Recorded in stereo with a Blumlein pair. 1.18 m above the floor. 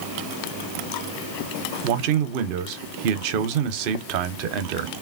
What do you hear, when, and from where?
1.8 s a man speaking: 45° right, 0.6 m